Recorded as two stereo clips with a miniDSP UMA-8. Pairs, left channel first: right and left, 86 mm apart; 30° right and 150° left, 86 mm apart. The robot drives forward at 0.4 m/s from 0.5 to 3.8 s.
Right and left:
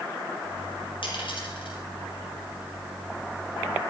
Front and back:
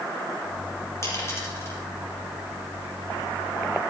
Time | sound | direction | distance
1.0 | a dropped coin | 85° right | 5 m